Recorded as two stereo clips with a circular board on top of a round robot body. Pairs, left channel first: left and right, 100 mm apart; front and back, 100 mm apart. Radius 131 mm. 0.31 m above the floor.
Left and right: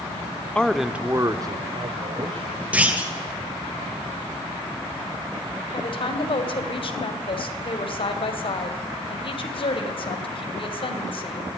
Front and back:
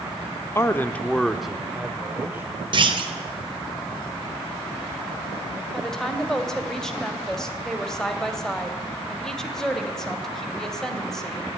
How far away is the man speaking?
About 1.1 m.